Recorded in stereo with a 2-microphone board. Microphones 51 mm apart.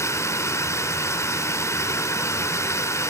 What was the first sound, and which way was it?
Running water, 70° left (ahead or behind).